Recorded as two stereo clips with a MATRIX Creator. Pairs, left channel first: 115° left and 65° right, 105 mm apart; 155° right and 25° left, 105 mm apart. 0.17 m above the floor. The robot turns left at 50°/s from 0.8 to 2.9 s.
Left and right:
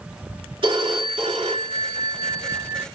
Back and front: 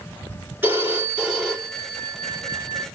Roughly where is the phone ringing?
Ahead right.